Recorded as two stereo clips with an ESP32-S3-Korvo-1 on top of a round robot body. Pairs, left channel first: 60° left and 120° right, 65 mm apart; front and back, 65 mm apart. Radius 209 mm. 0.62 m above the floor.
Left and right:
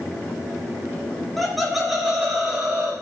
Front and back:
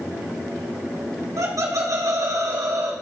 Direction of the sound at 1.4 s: 150° left.